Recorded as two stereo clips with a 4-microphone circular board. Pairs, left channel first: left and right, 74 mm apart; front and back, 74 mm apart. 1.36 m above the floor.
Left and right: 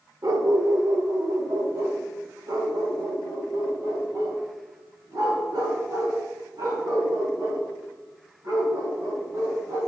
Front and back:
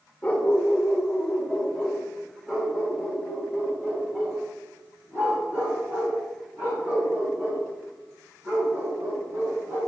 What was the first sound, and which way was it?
A dog barking, 75° right.